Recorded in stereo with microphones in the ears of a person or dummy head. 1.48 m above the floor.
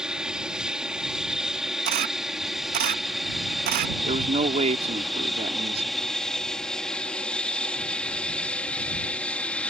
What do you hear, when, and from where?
0.0 s an aircraft: 5° right (ahead or behind); by 9.7 s 5° left (ahead or behind)
1.9 s a camera shutter: 45° right (ahead or behind)
4.0 s a man speaking: 40° right (ahead or behind)